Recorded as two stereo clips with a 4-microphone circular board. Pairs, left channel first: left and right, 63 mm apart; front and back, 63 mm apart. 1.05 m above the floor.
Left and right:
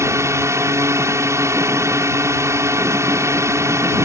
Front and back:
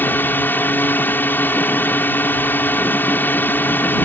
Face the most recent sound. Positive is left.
turn(degrees=-55)